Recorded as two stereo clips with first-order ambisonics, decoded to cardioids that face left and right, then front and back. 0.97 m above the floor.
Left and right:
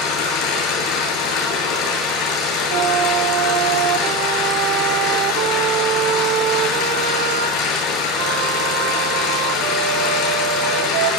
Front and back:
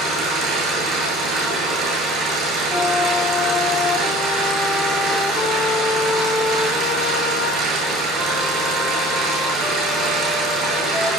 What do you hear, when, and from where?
0.0 s an engine running: 120° left, 9 m
2.7 s a flute: 85° right, 1.9 m